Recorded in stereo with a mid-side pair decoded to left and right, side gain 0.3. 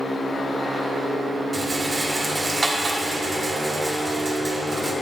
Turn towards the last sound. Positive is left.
turn(degrees=-35)